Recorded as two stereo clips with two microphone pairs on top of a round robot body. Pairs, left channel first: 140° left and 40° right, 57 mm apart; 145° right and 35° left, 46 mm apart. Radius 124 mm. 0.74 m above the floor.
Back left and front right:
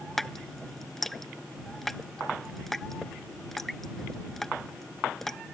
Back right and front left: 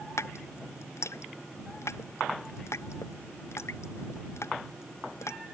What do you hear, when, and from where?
0.2 s dripping: 130° right